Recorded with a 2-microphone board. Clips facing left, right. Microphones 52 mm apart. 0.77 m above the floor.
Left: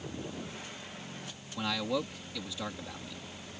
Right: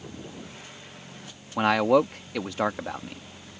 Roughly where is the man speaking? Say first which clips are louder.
Right 13 dB; right.